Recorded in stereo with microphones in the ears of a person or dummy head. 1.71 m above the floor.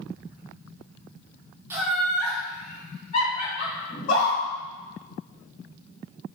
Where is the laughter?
10° right (ahead or behind), 0.7 m; by 3.8 s 45° left (ahead or behind), 2 m.